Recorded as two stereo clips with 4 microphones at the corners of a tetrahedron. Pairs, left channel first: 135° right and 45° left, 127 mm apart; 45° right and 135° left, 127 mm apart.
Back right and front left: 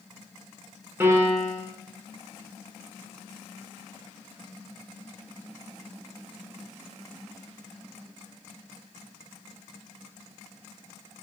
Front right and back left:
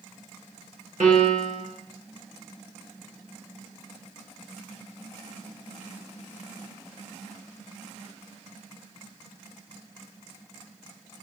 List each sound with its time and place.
1.0 s a piano: 120° left, 1.1 m